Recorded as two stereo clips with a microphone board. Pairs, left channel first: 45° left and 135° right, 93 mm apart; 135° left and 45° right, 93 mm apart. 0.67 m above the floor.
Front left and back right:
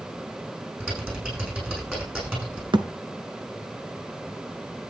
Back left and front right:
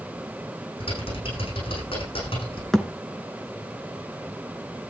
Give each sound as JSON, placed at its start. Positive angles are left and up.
{"t": 0.8, "sound": "typing on a keyboard", "azimuth_deg": 150, "distance_m": 8.5}
{"t": 2.7, "sound": "a thud", "azimuth_deg": -140, "distance_m": 1.1}